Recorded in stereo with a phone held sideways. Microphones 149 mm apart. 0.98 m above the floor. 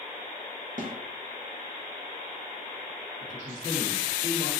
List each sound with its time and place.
0.8 s a snare drum: 60° right (ahead or behind), 0.6 m
3.2 s a man speaking: 55° right (ahead or behind), 1.9 m